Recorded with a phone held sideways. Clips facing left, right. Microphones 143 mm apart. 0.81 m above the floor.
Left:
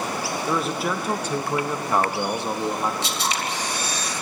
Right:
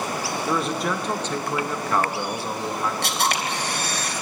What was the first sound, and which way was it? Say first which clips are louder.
A man speaking: even; centre (ahead or behind).